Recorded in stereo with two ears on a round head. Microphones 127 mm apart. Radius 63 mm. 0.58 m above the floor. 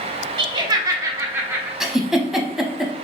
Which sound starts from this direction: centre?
A giggle, at 1.8 s.